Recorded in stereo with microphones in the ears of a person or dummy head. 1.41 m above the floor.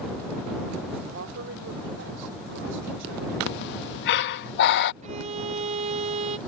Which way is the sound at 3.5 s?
60° left (ahead or behind).